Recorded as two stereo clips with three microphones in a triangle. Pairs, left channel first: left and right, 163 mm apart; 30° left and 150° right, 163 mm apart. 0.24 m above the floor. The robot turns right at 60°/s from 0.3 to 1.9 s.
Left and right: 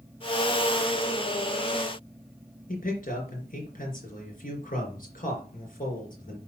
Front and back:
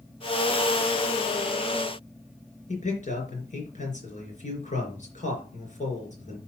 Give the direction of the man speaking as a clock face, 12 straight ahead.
10 o'clock.